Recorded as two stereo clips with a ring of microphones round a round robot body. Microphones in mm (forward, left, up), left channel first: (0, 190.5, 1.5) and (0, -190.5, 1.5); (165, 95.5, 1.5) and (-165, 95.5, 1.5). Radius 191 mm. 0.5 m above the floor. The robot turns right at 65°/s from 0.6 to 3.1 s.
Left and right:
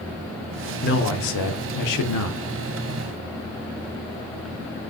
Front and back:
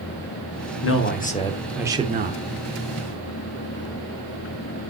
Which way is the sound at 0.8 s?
30° left.